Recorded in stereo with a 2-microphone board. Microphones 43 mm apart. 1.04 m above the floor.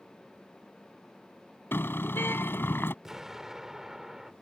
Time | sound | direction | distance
1.7 | a car horn | 60° left (ahead or behind) | ?
3.0 | an explosion | 10° right (ahead or behind) | ?